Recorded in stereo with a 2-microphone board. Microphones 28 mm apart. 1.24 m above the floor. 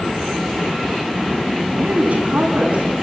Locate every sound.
1.7 s a woman speaking: 55° right (ahead or behind), 9.5 m